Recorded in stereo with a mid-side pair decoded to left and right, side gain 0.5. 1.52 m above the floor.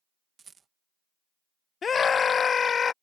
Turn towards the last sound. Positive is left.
turn(degrees=40)